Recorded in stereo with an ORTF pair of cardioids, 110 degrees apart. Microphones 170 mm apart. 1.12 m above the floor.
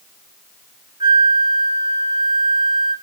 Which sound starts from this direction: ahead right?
A flute, at 1.0 s.